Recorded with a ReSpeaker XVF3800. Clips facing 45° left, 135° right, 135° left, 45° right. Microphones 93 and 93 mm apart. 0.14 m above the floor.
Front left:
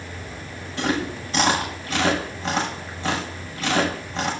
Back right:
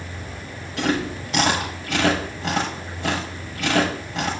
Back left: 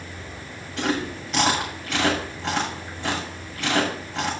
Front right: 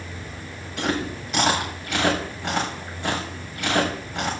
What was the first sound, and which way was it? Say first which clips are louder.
Chewing: back right 1 dB, even; 130° right.